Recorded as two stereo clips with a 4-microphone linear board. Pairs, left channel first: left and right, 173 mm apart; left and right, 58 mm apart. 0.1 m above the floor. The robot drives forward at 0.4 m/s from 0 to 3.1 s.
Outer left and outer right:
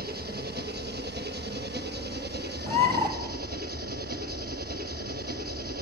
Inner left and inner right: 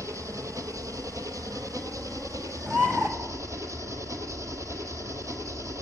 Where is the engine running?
60° right (ahead or behind), 1.6 m; by 5.8 s 55° right (ahead or behind), 1.7 m.